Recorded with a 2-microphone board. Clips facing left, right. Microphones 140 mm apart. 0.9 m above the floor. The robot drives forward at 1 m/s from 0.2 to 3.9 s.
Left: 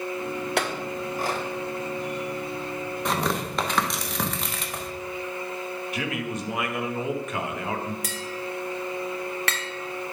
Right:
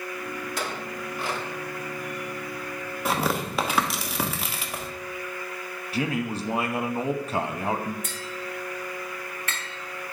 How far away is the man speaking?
About 0.8 m.